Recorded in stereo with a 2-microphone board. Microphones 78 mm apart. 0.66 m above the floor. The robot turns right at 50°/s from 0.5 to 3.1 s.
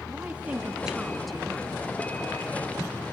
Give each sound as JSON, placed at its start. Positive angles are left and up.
{"t": 0.1, "sound": "a woman speaking", "azimuth_deg": -35, "distance_m": 1.1}